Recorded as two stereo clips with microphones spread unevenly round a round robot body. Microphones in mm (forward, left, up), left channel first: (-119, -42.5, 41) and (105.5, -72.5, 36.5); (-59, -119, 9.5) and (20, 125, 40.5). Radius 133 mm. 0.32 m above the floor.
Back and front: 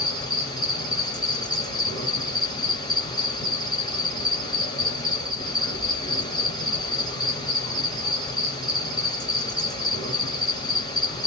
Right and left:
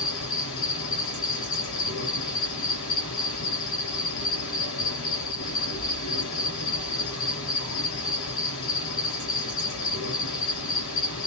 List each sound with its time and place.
0.0 s an insect: 115° right, 2.5 m